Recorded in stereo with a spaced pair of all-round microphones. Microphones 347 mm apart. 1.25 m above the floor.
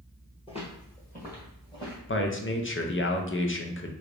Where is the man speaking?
35° left (ahead or behind), 0.5 m.